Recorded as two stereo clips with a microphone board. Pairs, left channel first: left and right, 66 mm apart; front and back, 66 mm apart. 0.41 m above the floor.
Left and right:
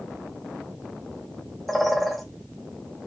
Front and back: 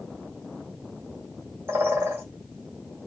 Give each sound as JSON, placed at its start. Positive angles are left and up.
{"t": 1.7, "sound": "a bird", "azimuth_deg": 180, "distance_m": 0.9}